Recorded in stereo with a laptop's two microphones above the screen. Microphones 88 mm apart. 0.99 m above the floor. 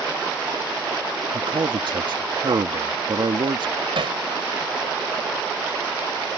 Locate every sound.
1.3 s a man speaking: 60° right (ahead or behind)
4.0 s hammering: 75° right (ahead or behind)